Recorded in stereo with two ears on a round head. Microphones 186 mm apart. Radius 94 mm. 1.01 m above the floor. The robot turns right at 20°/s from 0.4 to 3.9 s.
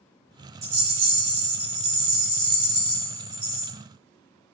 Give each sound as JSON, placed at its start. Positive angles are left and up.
{"t": 0.6, "sound": "a rattle", "azimuth_deg": -90, "distance_m": 2.5}